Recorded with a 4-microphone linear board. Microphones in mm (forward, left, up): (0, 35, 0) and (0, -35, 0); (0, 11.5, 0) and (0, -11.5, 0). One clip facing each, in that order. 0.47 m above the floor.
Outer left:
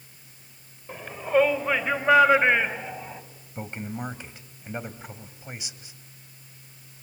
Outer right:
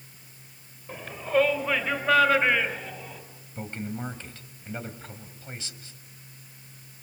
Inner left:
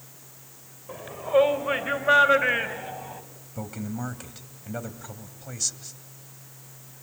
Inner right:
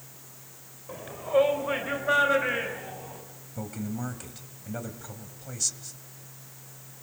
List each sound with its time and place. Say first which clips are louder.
0.9 s a shout: outer left 2 dB, inner left 3 dB; 5° left (ahead or behind), 2.5 m; by 3.2 s 25° left (ahead or behind), 3.5 m
3.5 s a man speaking: even, inner left 1 dB; 15° left (ahead or behind), 2.5 m